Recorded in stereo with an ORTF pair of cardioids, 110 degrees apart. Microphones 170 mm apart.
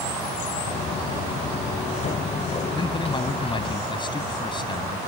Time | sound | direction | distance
0.7 | footsteps | 45° left | ?
2.8 | a man speaking | 25° left | ?